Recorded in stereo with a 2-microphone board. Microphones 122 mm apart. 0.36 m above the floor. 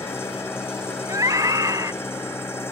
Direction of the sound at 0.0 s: 20° left (ahead or behind).